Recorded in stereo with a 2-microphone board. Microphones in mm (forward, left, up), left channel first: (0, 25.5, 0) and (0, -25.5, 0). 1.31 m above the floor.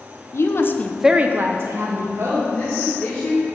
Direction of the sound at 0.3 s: 60° left (ahead or behind).